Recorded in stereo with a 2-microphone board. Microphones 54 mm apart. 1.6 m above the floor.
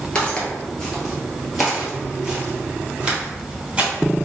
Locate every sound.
0.1 s footsteps: 20° left (ahead or behind), 1.6 m; by 3.9 s 20° right (ahead or behind), 2.5 m